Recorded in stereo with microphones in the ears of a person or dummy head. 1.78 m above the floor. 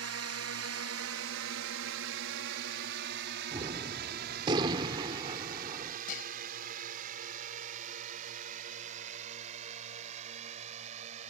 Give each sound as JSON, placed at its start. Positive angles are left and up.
{"t": 0.0, "sound": "a drone", "side_deg": -75}
{"t": 3.5, "sound": "a gunshot", "side_deg": -30}
{"t": 6.1, "sound": "dishes clattering", "side_deg": 45}